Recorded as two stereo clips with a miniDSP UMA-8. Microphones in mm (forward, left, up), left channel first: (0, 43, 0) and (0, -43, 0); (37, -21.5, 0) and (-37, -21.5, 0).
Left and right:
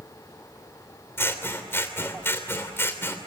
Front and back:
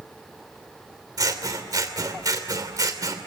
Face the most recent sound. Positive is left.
turn(degrees=150)